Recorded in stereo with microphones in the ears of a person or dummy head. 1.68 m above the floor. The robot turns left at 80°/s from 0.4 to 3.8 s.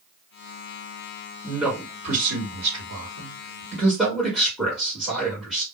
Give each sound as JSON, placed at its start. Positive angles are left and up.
{"t": 1.4, "sound": "a man speaking", "azimuth_deg": 10, "distance_m": 1.3}